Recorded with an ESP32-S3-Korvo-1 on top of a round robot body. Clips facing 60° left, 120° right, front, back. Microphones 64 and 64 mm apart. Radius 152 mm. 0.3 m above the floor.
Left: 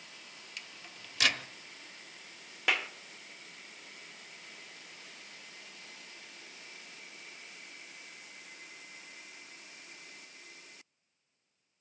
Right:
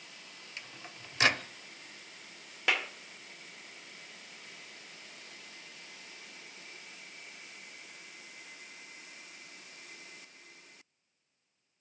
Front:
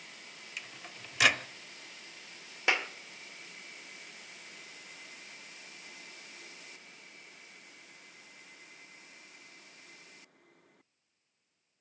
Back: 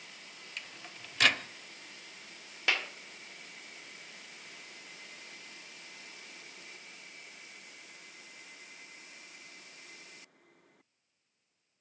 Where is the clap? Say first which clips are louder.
Even, front 2 dB; 30° right, 1.1 m.